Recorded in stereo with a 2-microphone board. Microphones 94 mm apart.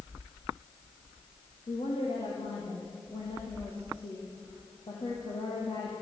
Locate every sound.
1.7 s a woman speaking: 70° left (ahead or behind), 4.5 m